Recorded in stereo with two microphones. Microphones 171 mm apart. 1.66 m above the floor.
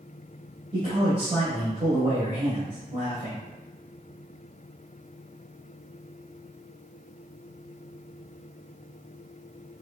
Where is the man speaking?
40° right (ahead or behind), 1.5 m.